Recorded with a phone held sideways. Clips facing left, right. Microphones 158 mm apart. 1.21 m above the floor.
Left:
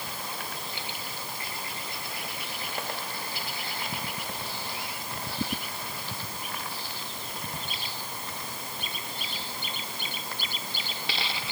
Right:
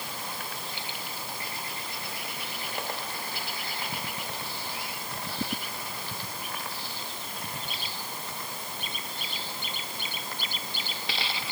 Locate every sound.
Only background noise.